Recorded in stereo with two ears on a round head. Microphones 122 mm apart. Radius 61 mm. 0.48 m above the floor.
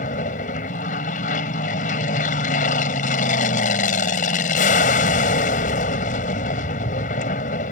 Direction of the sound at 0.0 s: 60° left (ahead or behind).